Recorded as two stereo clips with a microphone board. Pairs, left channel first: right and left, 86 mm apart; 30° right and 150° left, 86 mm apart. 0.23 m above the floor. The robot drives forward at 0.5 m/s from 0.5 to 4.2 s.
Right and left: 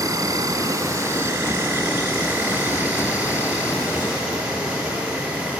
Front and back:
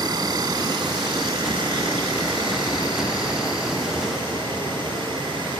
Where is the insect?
130° left, 1.0 m; by 5.6 s 165° left, 2.5 m.